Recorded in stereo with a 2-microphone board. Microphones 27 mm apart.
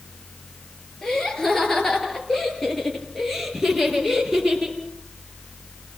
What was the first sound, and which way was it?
Laughter, 15° left (ahead or behind).